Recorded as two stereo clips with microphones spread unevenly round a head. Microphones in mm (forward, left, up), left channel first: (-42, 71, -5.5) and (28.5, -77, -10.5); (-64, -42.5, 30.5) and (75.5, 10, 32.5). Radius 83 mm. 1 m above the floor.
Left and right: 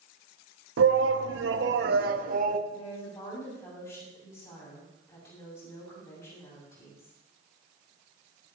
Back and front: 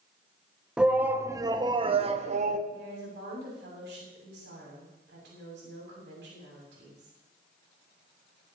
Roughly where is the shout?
Ahead right.